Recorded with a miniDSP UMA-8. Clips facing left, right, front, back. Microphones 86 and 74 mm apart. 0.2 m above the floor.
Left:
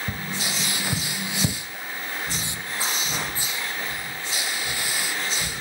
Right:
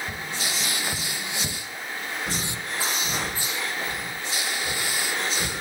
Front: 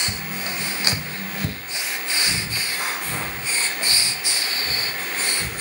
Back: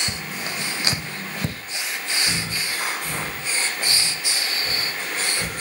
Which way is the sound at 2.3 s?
110° right.